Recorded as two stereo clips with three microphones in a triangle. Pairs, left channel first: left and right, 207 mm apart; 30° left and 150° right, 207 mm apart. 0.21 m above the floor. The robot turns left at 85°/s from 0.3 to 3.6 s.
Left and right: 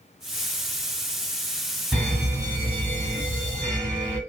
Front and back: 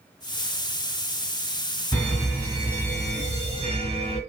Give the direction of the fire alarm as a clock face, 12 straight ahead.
12 o'clock.